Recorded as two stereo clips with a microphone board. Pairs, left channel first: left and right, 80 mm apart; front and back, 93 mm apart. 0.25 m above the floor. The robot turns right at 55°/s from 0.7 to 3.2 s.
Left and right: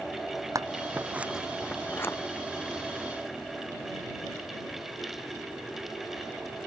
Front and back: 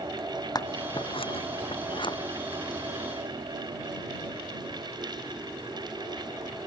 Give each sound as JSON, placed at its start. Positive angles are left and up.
{"t": 0.6, "sound": "scissors", "azimuth_deg": -45}